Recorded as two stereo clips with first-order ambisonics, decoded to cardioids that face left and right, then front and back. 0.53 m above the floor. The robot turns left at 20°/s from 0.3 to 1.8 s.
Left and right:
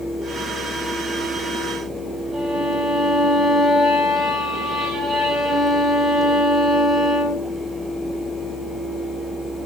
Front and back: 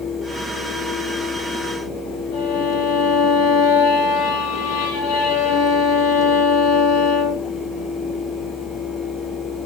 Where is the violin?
15° right, 7 m.